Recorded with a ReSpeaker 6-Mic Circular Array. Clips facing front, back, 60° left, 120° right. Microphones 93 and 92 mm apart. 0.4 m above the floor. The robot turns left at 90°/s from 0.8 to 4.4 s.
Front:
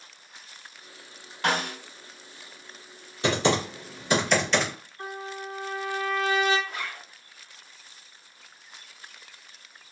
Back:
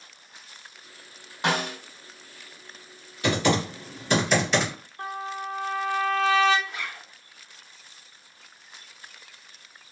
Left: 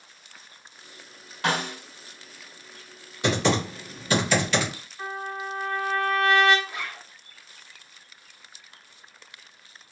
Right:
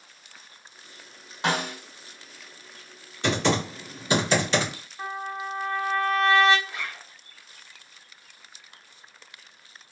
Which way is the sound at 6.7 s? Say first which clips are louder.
Front 1 dB, left 1 dB; 15° right.